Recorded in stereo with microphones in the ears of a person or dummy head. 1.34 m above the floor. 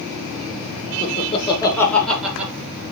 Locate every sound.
1.0 s laughter: 40° left (ahead or behind), 0.9 m; by 2.5 s 10° right (ahead or behind), 1.1 m